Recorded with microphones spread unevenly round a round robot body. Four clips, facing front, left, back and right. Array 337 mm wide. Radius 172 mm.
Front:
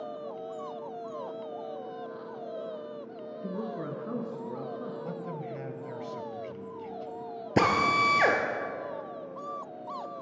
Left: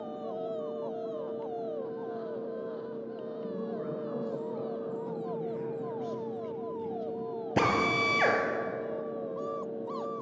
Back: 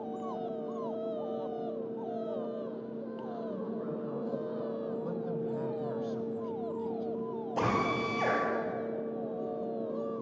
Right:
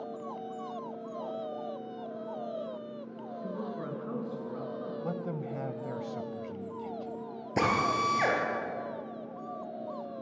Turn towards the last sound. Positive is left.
turn(degrees=5)